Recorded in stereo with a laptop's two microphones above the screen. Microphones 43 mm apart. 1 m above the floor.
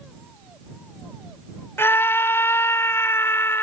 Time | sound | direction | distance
1.8 | a scream | 65° left (ahead or behind) | ?